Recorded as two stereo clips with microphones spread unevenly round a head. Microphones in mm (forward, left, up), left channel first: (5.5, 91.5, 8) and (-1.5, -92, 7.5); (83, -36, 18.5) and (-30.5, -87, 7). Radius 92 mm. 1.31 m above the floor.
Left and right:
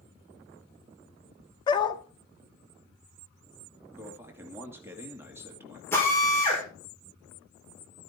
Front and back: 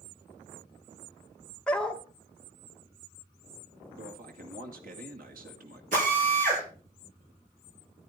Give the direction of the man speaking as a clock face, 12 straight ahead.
6 o'clock.